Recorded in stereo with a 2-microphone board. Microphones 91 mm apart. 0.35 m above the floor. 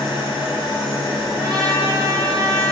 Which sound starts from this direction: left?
An engine running, at 0.0 s.